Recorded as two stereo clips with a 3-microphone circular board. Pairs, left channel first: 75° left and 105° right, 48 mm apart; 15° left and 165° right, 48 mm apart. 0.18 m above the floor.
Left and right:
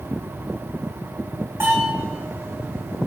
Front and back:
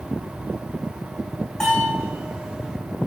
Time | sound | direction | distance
1.6 | a bell | 65° right | 8 m